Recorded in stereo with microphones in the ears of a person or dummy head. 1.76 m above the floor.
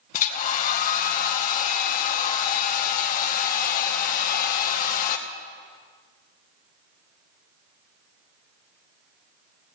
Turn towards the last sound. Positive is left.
turn(degrees=45)  # may be behind; listen again after turning